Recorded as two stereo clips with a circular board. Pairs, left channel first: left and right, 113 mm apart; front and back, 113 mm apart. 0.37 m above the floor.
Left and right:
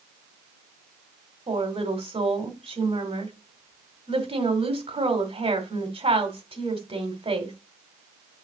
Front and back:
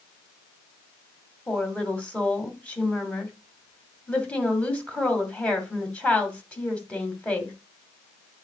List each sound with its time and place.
1.5 s a woman speaking: 75° right, 1.8 m